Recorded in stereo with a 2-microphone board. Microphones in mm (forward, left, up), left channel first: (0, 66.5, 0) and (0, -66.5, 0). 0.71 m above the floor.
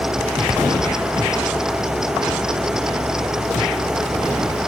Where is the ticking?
No ticking in this recording.